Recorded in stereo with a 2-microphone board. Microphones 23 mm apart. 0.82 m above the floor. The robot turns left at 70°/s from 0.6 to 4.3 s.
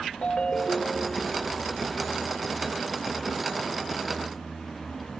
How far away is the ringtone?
About 1.4 m.